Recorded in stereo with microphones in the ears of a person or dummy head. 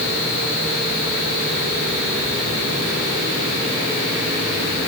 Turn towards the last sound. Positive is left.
No sound to turn to.